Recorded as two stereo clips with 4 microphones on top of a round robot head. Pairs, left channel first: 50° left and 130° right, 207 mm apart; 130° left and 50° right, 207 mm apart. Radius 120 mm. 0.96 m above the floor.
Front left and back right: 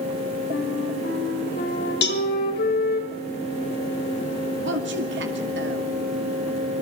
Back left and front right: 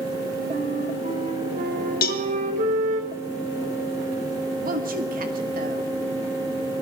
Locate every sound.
0.5 s a flute: 5° left, 4 m
2.0 s a cowbell: 85° left, 1.4 m
4.6 s a woman speaking: 100° right, 2 m